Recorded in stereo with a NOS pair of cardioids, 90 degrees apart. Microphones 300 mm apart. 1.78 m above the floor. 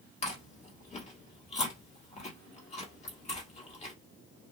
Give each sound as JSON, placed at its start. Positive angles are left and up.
{"t": 0.2, "sound": "chewing", "azimuth_deg": 25, "distance_m": 1.5}